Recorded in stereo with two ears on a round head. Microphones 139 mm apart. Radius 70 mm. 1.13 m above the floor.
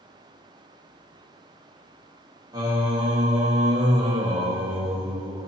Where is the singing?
25° right (ahead or behind), 1.0 m.